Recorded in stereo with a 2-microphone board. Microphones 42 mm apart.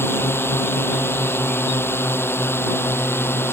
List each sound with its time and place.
0.0 s a drone: 70° left (ahead or behind)